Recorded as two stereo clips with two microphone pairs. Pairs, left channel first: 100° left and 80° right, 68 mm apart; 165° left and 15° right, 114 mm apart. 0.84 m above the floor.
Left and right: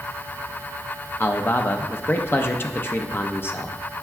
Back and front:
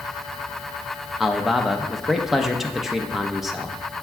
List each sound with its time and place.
1.2 s a man speaking: 75° left, 0.6 m